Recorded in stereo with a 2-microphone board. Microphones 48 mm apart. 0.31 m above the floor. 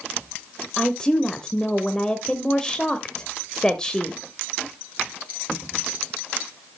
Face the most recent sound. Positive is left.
turn(degrees=15)  # may be behind; listen again after turning